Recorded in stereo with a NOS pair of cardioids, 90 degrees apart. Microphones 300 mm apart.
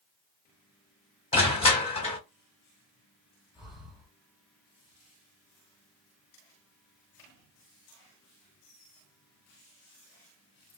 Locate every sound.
1.3 s crushing: 20° left, 1.1 m
3.5 s breathing: straight ahead, 1.1 m